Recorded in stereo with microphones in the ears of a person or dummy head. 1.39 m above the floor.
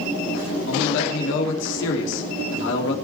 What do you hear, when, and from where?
0.7 s a man speaking: 70° left (ahead or behind), 3 m